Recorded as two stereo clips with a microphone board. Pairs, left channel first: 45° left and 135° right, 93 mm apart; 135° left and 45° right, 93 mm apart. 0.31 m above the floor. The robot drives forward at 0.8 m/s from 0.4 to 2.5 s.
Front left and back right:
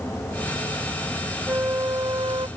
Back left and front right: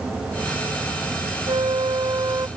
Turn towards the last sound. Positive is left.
turn(degrees=-100)